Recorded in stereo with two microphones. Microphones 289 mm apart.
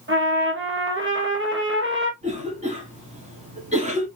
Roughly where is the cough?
Right.